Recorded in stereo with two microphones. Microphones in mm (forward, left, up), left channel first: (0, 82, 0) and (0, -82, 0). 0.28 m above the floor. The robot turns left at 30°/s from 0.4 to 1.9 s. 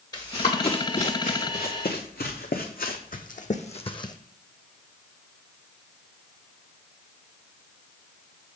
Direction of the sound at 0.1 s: 25° left (ahead or behind).